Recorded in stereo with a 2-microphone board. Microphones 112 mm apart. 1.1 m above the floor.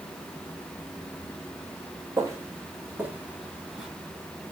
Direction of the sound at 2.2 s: 25° right (ahead or behind).